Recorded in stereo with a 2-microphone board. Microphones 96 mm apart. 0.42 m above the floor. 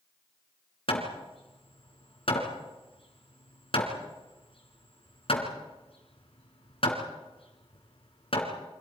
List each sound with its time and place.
0.9 s hammering: 70° left (ahead or behind), 3.5 m